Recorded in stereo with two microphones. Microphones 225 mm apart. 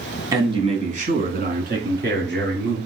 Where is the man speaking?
15° right (ahead or behind), 1.1 m; by 2.8 s 50° right (ahead or behind), 2.5 m.